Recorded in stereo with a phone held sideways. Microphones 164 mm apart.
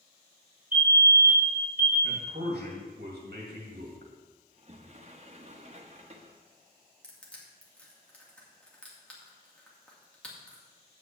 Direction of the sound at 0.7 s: 55° right (ahead or behind).